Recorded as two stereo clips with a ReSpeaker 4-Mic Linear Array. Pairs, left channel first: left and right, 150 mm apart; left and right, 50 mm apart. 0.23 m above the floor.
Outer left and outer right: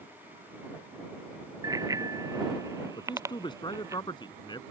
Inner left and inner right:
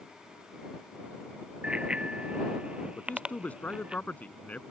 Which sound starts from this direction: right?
A bicycle bell, at 1.6 s.